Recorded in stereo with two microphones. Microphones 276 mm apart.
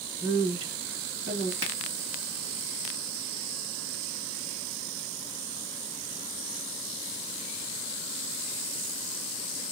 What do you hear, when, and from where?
0.2 s a woman speaking: 30° left (ahead or behind), 2 m
1.6 s a finger snap: 10° right (ahead or behind), 2.5 m